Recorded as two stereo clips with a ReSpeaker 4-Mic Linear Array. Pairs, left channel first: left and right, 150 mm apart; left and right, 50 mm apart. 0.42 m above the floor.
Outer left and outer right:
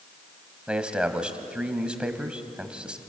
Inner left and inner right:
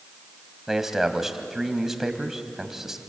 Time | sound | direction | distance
0.7 | a man speaking | 5° right (ahead or behind) | 2 m